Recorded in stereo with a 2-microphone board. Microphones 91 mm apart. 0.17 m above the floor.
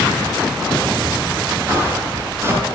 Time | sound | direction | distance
1.7 | footsteps | 30° right (ahead or behind) | 6.5 m